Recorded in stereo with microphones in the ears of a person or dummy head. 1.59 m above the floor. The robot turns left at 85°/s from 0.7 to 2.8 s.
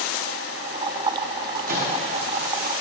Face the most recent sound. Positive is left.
turn(degrees=145)